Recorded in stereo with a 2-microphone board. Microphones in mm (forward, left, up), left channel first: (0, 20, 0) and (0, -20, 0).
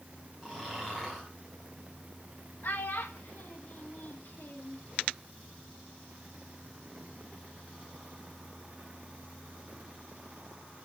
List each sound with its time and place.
0.4 s snoring: 10° right (ahead or behind), 8.5 m
2.6 s a child speaking: 80° left, 1.6 m